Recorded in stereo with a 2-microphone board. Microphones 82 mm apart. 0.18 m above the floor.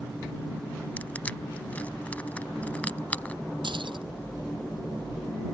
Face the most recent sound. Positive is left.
turn(degrees=-80)